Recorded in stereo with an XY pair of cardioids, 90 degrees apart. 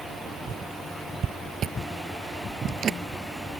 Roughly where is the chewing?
Ahead right.